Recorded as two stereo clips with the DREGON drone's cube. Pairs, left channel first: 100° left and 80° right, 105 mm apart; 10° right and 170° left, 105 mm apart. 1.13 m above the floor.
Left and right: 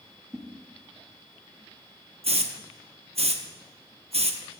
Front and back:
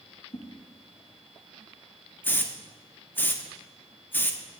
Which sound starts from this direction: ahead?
A whoosh, at 0.3 s.